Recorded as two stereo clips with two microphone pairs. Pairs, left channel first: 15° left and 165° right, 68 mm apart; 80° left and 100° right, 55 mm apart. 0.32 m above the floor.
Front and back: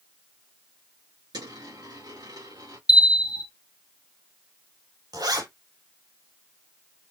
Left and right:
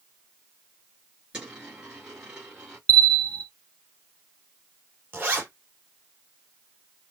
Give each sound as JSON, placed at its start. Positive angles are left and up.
{"t": 1.3, "sound": "a dropped coin", "azimuth_deg": -175, "distance_m": 3.5}
{"t": 2.9, "sound": "a bell", "azimuth_deg": 20, "distance_m": 1.0}
{"t": 5.1, "sound": "a zipper", "azimuth_deg": -155, "distance_m": 5.0}